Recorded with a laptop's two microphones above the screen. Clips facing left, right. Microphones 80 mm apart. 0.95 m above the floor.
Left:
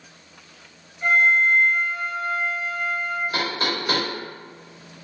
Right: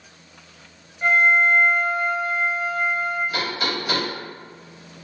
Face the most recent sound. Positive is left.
turn(degrees=40)  # may be behind; listen again after turning